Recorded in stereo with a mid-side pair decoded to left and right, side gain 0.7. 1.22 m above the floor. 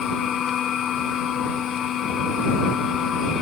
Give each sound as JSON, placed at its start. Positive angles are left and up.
{"t": 0.0, "sound": "a machine running", "azimuth_deg": 40}